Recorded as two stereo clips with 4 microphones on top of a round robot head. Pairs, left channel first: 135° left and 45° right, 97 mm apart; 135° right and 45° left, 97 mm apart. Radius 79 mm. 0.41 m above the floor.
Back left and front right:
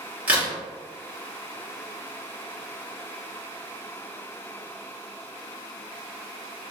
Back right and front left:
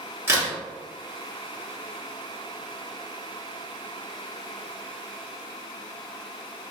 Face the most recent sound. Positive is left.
turn(degrees=15)